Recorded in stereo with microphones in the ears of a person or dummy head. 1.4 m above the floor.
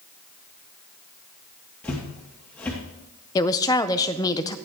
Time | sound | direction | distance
1.8 | footsteps | 10° left (ahead or behind) | 2 m
3.4 | a woman speaking | 20° left (ahead or behind) | 0.5 m